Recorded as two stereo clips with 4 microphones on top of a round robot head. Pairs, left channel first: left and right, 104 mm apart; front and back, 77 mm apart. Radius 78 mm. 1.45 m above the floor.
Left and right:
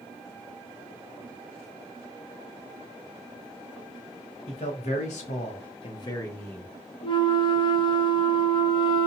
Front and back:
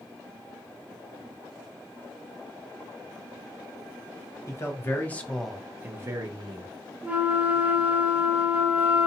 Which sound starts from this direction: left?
A flute, at 7.0 s.